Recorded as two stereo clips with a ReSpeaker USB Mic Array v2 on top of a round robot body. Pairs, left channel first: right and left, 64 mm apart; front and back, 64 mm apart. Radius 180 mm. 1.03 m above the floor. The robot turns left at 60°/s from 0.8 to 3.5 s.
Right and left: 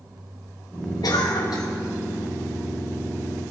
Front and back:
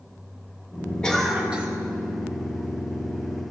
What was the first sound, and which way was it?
A cough, 75° right.